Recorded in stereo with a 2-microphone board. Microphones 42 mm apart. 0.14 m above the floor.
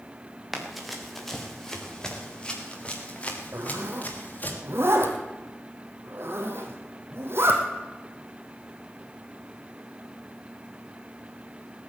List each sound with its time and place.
0.5 s running footsteps: 5° right (ahead or behind), 3.5 m; by 4.5 s 40° left (ahead or behind), 4.5 m
3.5 s a zipper: 65° right (ahead or behind), 2.5 m